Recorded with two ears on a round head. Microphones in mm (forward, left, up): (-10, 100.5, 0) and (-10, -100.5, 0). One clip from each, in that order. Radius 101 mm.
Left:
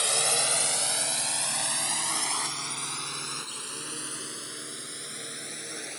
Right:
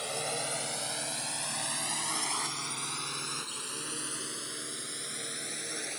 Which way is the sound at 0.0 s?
45° left (ahead or behind).